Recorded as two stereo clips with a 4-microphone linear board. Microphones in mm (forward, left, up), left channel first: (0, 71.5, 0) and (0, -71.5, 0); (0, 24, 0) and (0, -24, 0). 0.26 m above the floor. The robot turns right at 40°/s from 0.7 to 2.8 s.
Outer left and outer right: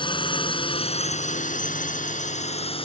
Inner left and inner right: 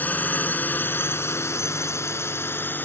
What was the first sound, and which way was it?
A drone, 35° left (ahead or behind).